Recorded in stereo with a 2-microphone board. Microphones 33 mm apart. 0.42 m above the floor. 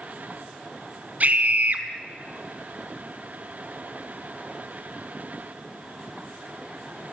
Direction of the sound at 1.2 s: 50° right (ahead or behind).